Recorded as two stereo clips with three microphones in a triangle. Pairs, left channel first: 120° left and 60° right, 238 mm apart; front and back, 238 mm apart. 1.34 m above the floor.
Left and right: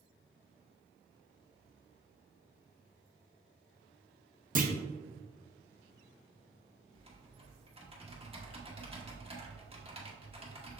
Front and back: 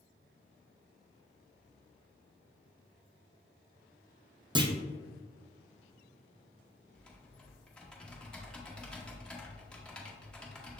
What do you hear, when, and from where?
4.5 s a clunk: 110° right, 0.5 m
6.9 s typing on a keyboard: 80° right, 0.9 m